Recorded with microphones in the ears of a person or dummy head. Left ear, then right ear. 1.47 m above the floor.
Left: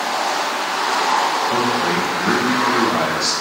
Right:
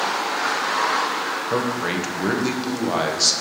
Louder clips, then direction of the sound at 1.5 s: Left 5 dB; 80° right.